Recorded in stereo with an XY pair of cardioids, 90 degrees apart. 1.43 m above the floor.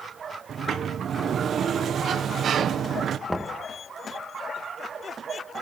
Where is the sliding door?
60° right, 0.8 m.